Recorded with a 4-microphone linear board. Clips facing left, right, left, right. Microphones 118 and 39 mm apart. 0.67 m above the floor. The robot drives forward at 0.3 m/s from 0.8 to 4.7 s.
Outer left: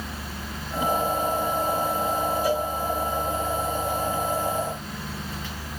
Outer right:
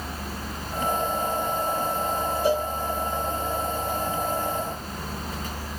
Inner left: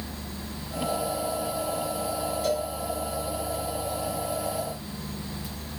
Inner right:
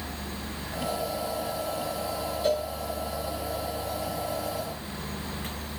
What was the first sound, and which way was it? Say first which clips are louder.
A cowbell: outer right 4 dB, inner right 2 dB; 25° right (ahead or behind).